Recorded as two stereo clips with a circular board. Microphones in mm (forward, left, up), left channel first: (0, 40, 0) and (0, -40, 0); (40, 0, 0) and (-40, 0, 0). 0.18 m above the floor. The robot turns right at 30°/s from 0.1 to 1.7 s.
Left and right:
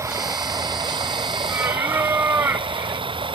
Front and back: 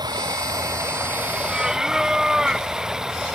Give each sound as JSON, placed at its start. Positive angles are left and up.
{"t": 0.0, "sound": "running water", "azimuth_deg": -145}
{"t": 1.5, "sound": "singing", "azimuth_deg": -115}